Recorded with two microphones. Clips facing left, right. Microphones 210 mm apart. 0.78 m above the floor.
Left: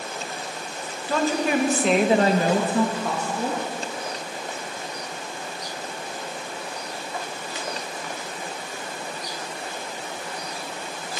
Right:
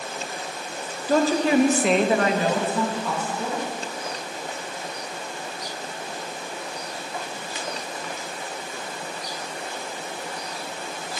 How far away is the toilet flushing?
No toilet flushing in this recording.